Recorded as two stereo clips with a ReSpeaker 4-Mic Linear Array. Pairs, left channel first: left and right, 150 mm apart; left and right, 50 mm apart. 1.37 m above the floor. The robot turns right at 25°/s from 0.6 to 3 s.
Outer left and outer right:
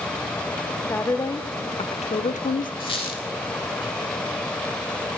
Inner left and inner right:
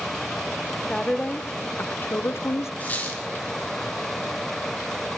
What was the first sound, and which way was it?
A woman speaking, 15° left.